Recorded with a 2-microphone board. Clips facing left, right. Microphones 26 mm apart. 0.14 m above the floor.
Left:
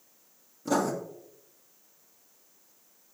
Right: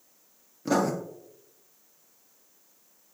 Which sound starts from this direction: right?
Writing, at 0.7 s.